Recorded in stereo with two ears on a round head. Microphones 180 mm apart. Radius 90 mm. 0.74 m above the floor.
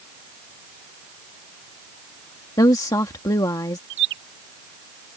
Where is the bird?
60° right (ahead or behind).